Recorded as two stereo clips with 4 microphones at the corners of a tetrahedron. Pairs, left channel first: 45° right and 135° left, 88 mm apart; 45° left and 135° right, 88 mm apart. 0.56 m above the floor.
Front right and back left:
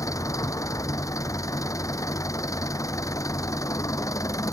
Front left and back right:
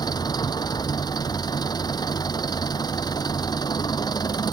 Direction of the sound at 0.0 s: 5° left.